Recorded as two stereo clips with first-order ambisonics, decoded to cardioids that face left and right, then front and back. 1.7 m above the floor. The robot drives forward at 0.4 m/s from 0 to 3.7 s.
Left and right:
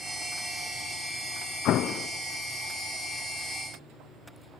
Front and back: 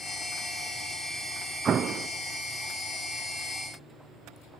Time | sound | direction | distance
1.6 | an explosion | 120° left | 0.5 m